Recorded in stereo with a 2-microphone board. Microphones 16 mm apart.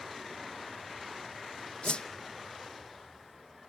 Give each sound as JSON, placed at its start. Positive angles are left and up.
{"t": 1.8, "sound": "a whoosh", "side_deg": 85, "distance_m": 0.7}